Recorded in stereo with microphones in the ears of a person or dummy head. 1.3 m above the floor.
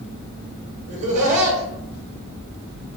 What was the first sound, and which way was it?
Laughter, 40° right (ahead or behind).